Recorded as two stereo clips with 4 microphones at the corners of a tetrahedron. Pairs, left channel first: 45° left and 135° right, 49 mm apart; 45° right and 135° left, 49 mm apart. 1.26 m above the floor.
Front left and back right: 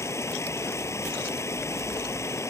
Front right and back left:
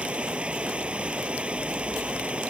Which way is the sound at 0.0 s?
65° left.